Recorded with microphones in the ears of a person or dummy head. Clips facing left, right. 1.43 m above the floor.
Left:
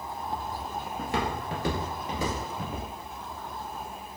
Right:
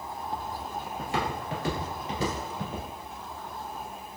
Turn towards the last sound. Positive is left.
turn(degrees=5)  # may be behind; listen again after turning